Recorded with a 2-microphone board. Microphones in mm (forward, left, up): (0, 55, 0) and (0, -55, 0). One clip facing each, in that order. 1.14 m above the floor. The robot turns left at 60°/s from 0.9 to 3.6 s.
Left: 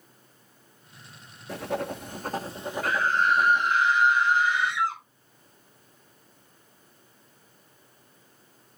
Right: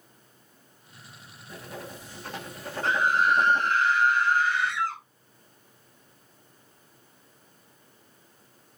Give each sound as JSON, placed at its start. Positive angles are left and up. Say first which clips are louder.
{"t": 1.5, "sound": "writing", "louder": "left 10 dB", "azimuth_deg": 90, "distance_m": 1.1}
{"t": 2.8, "sound": "a scream", "louder": "right 1 dB", "azimuth_deg": -150, "distance_m": 4.5}